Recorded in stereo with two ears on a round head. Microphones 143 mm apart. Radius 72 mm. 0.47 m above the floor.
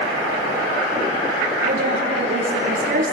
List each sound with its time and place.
1.6 s a woman speaking: 50° right (ahead or behind), 8 m